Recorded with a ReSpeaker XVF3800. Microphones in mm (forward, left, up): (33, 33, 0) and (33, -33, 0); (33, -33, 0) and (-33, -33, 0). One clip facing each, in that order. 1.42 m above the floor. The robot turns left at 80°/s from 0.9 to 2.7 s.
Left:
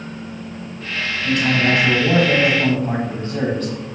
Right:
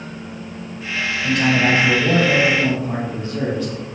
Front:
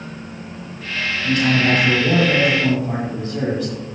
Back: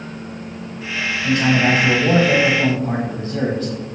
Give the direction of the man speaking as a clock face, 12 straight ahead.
3 o'clock.